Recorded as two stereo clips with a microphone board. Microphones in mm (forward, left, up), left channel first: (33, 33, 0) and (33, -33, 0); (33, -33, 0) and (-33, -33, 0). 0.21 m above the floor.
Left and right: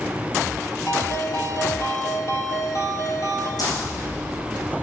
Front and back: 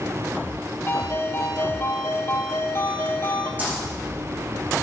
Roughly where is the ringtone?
Ahead left.